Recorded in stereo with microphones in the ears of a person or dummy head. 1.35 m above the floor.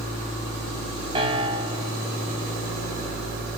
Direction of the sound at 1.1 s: 30° right (ahead or behind).